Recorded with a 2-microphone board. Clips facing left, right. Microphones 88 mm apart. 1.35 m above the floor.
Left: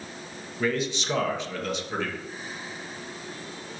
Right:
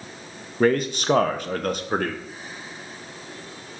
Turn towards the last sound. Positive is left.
turn(degrees=-50)  # may be behind; listen again after turning